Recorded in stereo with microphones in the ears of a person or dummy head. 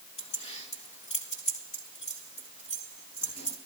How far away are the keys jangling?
About 1.4 m.